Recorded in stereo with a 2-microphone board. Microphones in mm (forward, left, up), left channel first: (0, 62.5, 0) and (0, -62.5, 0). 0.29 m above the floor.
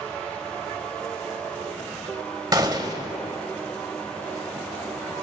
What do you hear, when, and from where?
2.5 s a gunshot: 30° right (ahead or behind), 1.1 m